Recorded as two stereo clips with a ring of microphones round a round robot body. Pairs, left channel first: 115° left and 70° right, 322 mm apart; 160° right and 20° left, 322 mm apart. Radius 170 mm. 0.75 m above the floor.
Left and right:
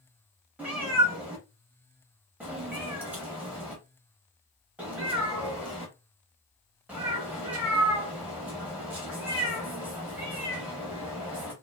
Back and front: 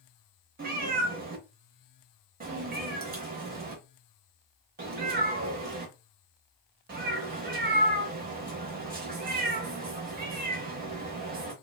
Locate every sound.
0.6 s a cat meowing: 10° left, 0.5 m